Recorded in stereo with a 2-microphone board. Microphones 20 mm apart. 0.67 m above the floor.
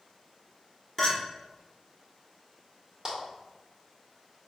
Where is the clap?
40° right (ahead or behind), 1.6 m.